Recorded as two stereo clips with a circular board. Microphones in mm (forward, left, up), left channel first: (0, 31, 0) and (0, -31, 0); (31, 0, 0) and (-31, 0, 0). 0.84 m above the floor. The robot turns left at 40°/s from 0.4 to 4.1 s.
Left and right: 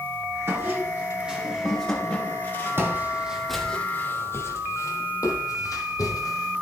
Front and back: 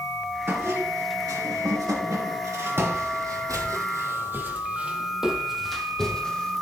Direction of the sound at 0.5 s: 135° right.